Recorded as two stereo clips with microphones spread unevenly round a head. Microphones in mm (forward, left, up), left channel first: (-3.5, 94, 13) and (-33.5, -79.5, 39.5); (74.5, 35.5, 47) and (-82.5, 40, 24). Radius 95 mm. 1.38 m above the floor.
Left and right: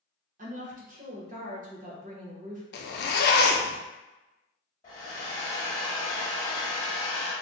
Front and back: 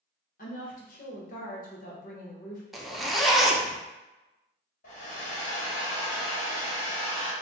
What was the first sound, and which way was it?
A woman speaking, 50° right.